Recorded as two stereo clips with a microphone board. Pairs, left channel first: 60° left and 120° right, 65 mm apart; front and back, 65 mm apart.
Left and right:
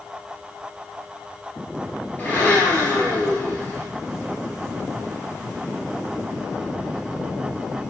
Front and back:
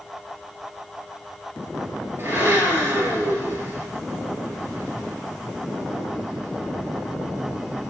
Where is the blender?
125° left, 2.5 m.